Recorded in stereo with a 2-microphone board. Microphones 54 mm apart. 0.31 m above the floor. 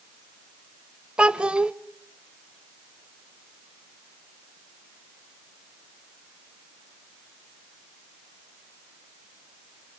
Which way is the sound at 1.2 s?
20° right (ahead or behind).